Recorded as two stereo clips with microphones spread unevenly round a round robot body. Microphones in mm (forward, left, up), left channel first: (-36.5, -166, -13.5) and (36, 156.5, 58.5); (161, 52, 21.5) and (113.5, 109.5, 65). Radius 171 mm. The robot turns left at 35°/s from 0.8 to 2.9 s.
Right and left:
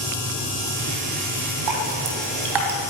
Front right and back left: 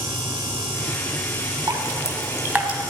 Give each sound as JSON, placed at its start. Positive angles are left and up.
{"t": 1.7, "sound": "dripping", "azimuth_deg": 90, "distance_m": 3.0}